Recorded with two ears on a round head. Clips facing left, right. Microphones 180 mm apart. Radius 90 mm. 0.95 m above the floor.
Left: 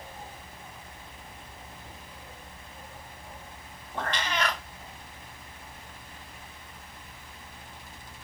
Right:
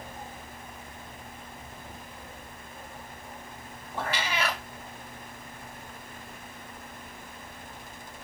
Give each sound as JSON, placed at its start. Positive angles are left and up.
{"t": 4.0, "sound": "a cat meowing", "side_deg": -5, "distance_m": 0.5}